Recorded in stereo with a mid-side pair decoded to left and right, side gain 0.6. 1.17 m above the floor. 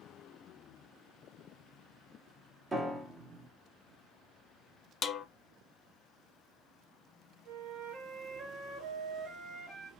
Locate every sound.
2.7 s a piano: 30° right, 0.7 m
5.0 s a snare drum: 40° left, 0.5 m
7.5 s a flute: 70° right, 1.5 m